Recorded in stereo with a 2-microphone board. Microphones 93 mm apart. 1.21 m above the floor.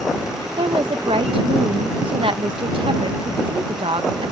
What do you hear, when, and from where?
0.6 s a woman speaking: 65° right (ahead or behind)